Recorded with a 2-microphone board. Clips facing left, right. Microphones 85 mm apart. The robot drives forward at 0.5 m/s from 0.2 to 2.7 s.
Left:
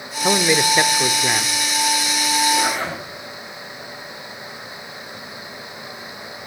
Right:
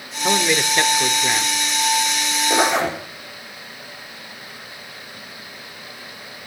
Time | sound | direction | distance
0.2 | a man speaking | 10° left (ahead or behind) | 1.0 m
2.5 | a zipper | 70° right (ahead or behind) | 7.5 m